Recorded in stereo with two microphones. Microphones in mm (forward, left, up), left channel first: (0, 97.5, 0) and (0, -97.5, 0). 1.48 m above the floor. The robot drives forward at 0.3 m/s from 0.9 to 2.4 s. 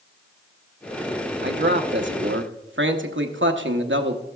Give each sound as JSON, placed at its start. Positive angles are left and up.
{"t": 1.4, "sound": "a man speaking", "side_deg": -65, "distance_m": 1.0}